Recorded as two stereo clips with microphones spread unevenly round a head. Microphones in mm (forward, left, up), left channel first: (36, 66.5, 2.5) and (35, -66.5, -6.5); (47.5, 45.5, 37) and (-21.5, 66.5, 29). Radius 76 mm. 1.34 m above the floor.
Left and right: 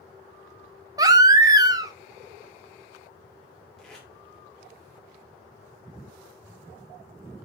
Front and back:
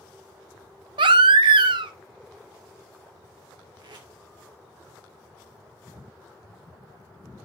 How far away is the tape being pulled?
About 2.5 m.